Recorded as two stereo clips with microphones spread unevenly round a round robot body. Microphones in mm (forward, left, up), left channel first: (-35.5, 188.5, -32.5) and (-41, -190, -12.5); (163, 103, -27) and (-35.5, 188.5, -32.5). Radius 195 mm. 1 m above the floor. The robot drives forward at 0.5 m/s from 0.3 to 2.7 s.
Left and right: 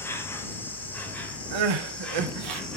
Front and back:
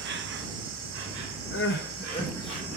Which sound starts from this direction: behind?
An insect, at 0.0 s.